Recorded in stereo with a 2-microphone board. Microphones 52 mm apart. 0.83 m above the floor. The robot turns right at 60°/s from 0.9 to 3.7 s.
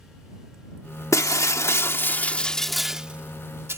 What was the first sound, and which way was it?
Breaking glass, 85° left.